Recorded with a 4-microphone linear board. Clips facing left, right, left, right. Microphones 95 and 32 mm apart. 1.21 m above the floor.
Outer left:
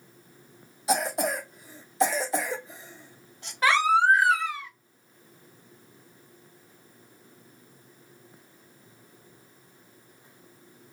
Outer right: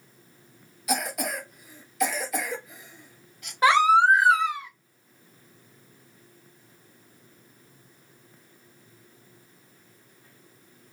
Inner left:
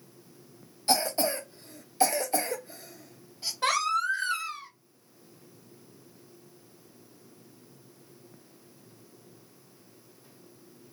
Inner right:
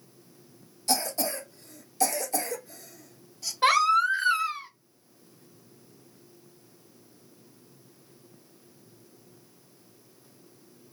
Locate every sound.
0.9 s a cough: 30° left (ahead or behind), 0.6 m
3.6 s a baby crying: 20° right (ahead or behind), 0.7 m